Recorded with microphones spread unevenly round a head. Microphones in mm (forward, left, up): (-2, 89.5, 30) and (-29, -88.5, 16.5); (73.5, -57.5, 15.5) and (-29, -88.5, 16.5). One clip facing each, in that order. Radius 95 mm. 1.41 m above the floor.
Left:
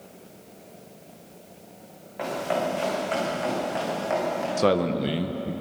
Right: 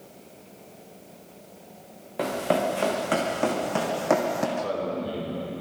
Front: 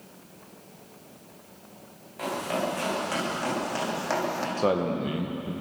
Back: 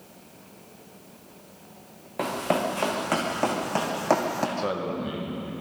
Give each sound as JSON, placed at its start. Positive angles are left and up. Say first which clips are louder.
{"t": 2.2, "sound": "running footsteps", "louder": "right 2 dB, back 3 dB", "azimuth_deg": -140, "distance_m": 6.5}
{"t": 4.6, "sound": "a man speaking", "louder": "left 6 dB, front 3 dB", "azimuth_deg": 75, "distance_m": 1.5}